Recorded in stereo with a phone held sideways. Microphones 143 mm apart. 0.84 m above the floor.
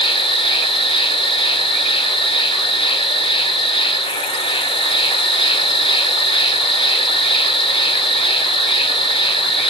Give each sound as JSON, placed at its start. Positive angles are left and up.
{"t": 0.0, "sound": "an insect", "side_deg": 40, "distance_m": 0.7}